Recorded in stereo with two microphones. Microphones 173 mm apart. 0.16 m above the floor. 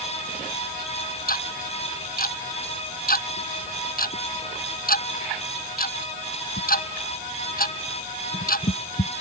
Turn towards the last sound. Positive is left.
turn(degrees=55)  # may be behind; listen again after turning